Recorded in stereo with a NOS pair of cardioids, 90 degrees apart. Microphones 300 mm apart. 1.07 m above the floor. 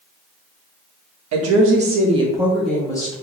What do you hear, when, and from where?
1.3 s a woman speaking: 55° right, 1.0 m; by 3.1 s 15° left, 1.4 m